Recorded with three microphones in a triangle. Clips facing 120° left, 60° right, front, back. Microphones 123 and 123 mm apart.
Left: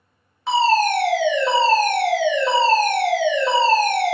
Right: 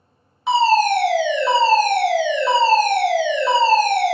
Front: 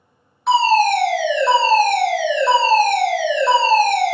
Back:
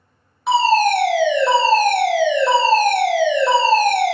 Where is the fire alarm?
100° right, 1.2 m.